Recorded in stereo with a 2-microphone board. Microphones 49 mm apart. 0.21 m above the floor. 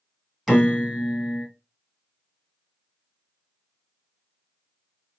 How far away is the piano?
About 1.8 m.